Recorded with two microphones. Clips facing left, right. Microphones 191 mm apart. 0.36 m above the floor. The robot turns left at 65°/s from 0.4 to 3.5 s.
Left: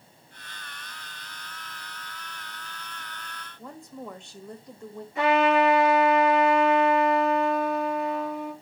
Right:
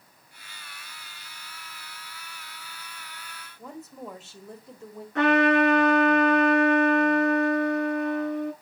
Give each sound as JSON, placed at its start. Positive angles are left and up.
{"t": 3.6, "sound": "a woman speaking", "side_deg": -5, "distance_m": 1.2}
{"t": 5.2, "sound": "a trumpet", "side_deg": -75, "distance_m": 4.0}